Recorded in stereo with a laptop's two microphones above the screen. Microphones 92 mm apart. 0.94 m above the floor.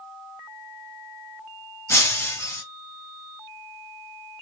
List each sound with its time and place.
1.9 s breaking glass: 25° left (ahead or behind), 1.8 m